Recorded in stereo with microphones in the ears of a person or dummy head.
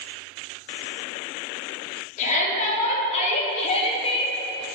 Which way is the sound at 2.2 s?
40° left (ahead or behind).